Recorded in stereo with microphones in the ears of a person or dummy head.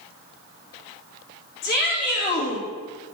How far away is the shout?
About 3.5 m.